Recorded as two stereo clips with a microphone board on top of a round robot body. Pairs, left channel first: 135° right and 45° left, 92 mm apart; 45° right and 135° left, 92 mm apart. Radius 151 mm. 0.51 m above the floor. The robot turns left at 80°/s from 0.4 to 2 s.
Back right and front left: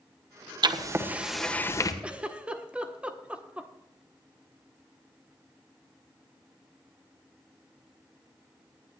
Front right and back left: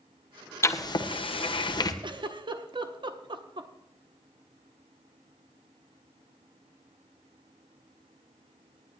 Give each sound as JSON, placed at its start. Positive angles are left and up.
{"t": 0.6, "sound": "writing", "azimuth_deg": 15, "distance_m": 1.8}
{"t": 2.0, "sound": "a giggle", "azimuth_deg": 120, "distance_m": 1.6}